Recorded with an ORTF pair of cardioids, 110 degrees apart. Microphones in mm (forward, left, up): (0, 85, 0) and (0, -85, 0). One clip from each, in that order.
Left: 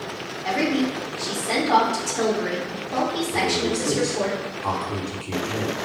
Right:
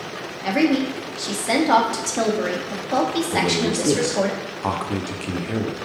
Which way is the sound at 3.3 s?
45° right.